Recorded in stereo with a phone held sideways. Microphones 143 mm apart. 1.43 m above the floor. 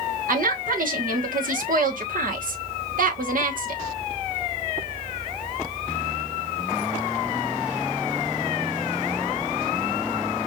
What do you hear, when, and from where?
0.3 s a woman speaking: 70° right (ahead or behind), 1.2 m